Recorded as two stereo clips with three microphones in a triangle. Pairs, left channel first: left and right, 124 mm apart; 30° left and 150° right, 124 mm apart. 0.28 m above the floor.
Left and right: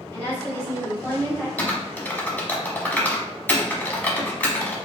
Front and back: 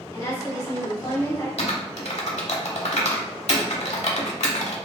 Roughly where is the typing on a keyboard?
Ahead.